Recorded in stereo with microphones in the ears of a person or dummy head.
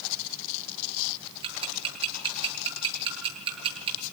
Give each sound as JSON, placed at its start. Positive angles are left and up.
{"t": 1.4, "sound": "ticking", "side_deg": -30, "distance_m": 10.0}